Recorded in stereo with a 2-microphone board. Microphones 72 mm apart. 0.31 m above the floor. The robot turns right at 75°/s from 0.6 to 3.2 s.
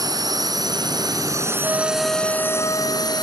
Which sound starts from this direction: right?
A drone, at 0.0 s.